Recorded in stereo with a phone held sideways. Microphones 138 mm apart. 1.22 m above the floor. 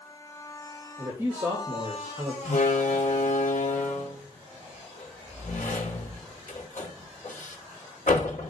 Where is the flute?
I don't hear a flute.